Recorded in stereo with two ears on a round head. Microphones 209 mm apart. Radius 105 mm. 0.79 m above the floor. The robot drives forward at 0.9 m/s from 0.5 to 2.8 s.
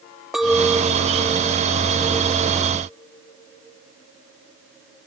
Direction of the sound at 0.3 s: Centre (ahead or behind).